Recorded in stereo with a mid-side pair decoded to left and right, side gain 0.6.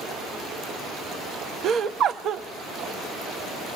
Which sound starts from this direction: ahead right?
Laughter, at 1.6 s.